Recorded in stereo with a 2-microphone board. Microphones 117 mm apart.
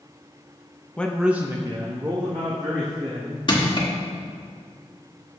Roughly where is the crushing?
Left.